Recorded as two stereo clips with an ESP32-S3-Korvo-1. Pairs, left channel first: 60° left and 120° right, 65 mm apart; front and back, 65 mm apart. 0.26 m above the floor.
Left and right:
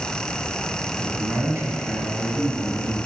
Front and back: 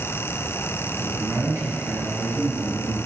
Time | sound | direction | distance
1.0 | a man speaking | 155° right | 1.9 m